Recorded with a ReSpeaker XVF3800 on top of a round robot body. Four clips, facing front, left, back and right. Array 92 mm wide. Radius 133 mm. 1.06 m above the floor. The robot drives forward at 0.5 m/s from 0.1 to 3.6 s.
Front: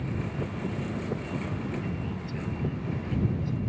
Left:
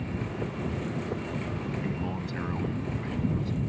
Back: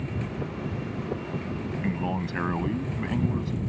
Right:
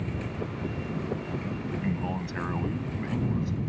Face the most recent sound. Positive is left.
turn(degrees=-165)